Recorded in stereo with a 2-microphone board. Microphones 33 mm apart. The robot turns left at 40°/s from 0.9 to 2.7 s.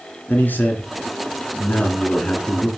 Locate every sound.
0.3 s a man speaking: 95° left, 3 m; by 2.7 s 25° left, 3 m